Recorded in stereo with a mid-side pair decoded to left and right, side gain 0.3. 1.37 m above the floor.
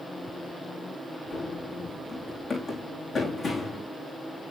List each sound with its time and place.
1.3 s running footsteps: 65° left, 6 m